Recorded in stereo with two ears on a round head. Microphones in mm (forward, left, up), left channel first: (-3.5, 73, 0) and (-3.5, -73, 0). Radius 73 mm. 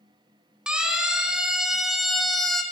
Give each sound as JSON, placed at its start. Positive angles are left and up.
{"t": 0.7, "sound": "a siren", "side_deg": -5, "distance_m": 3.5}